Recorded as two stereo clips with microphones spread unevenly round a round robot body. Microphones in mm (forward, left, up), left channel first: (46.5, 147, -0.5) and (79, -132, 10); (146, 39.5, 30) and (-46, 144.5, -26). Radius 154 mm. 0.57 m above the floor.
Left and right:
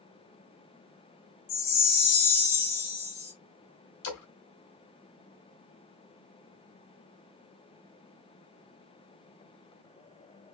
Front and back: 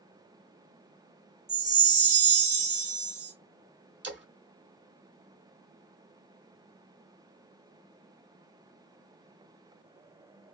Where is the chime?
135° left, 1.9 m.